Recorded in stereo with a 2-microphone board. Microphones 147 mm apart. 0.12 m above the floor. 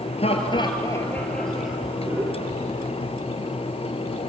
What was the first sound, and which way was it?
Laughter, 45° left (ahead or behind).